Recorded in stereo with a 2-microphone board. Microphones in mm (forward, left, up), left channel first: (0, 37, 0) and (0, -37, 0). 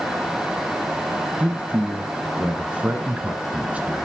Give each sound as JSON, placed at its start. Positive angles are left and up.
{"t": 1.4, "sound": "a man speaking", "side_deg": -20, "distance_m": 1.4}